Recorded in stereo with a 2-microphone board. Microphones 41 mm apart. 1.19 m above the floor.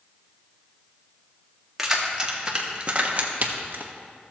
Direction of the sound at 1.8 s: 10° right (ahead or behind).